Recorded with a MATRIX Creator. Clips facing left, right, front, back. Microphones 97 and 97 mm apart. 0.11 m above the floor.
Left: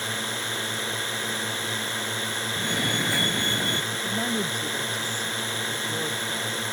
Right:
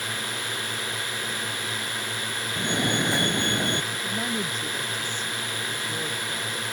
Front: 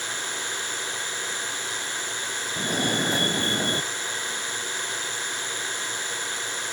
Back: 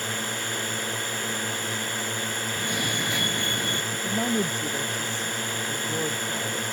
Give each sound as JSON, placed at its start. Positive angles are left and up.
{"t": 0.0, "sound": "a drone", "azimuth_deg": 145}
{"t": 2.6, "sound": "a fire alarm", "azimuth_deg": -30}
{"t": 3.9, "sound": "a woman speaking", "azimuth_deg": 165}